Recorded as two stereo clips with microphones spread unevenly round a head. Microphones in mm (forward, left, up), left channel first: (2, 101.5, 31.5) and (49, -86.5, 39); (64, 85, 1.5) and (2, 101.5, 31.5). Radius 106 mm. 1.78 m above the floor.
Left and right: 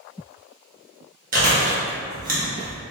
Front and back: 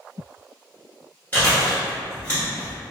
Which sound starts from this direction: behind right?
Chewing, at 1.3 s.